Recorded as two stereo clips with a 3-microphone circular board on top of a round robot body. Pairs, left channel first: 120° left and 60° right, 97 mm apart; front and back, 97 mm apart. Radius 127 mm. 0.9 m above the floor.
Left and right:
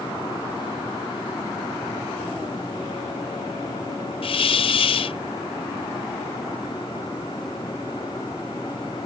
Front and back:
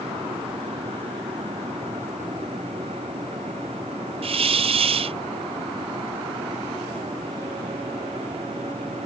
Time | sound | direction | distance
4.2 | a hiss | 155° left | ?